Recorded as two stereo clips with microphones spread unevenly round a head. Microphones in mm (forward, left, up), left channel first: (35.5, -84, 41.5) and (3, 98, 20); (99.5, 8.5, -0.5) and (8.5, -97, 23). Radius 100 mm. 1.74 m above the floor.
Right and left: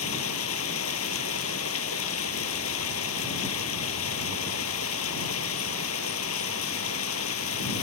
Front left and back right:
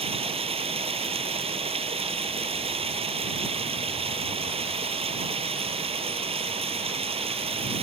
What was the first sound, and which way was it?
Running water, 90° right.